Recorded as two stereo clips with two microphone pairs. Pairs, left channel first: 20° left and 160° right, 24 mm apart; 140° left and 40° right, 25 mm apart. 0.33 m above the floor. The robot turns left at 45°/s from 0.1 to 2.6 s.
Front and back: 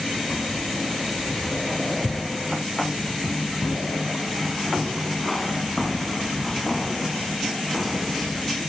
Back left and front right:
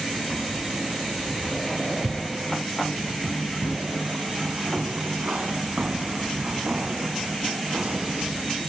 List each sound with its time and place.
0.3 s keys jangling: 40° left, 2.5 m; by 8.6 s 65° right, 2.5 m